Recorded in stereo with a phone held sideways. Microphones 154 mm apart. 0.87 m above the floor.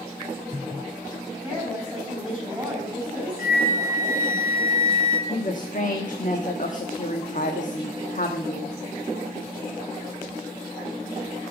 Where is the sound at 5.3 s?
55° left (ahead or behind), 1.2 m.